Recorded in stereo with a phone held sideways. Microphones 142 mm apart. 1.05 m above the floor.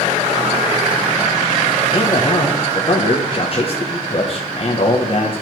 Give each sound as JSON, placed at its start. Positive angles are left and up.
{"t": 1.9, "sound": "a man speaking", "side_deg": 40, "distance_m": 1.0}